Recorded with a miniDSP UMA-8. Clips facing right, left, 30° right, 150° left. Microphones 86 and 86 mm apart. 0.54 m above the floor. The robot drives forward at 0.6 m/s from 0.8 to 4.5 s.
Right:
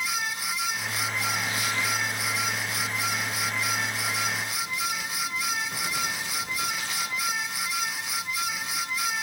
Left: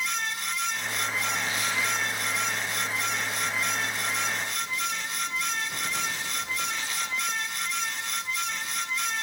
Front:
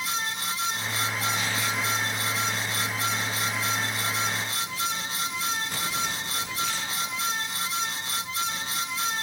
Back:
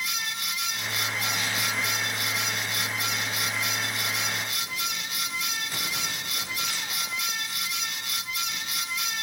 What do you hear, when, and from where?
Only background noise.